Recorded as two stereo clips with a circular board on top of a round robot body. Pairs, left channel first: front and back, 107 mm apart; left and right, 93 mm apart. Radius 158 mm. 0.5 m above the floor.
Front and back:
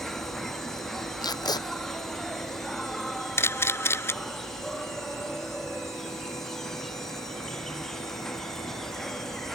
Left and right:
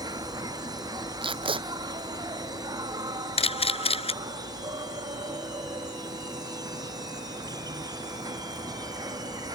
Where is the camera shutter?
70° left.